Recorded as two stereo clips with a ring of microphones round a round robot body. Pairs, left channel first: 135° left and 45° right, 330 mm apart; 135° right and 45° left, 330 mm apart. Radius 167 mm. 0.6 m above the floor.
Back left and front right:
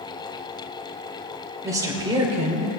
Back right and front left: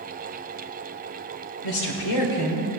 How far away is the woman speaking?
About 2.5 m.